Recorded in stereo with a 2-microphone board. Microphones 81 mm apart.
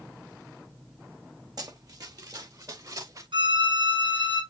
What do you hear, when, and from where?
1.6 s running footsteps: 50° right (ahead or behind), 3 m; by 3.2 s 45° right (ahead or behind), 5.5 m
3.3 s a violin: 80° right, 5.5 m